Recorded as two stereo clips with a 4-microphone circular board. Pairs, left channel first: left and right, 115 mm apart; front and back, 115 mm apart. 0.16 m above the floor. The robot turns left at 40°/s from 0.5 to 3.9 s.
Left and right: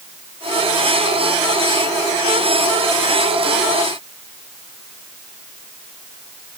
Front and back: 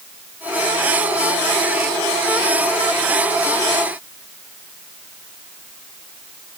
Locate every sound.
Only background noise.